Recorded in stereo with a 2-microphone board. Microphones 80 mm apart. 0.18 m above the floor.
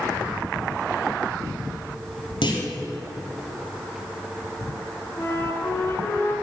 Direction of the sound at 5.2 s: 30° left (ahead or behind).